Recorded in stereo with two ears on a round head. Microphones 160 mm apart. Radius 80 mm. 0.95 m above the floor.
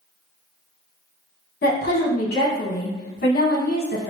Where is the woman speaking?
55° left (ahead or behind), 1.2 m.